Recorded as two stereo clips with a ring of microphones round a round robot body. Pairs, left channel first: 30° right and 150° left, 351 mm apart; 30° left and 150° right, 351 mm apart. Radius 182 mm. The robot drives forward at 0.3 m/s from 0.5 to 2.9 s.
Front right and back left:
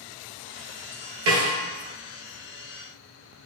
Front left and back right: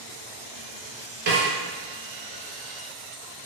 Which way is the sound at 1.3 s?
165° left.